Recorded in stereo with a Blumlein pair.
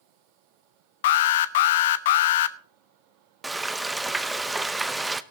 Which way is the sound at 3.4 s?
10° right.